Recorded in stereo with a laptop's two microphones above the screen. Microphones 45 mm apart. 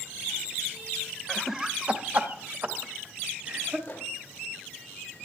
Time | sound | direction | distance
1.3 | laughter | centre (ahead or behind) | 0.8 m
3.9 | a microwave | 40° left (ahead or behind) | 3.5 m